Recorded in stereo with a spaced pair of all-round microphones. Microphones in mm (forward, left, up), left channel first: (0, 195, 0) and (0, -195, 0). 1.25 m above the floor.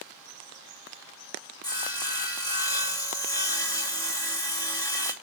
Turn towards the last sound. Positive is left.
turn(degrees=10)  # may be behind; listen again after turning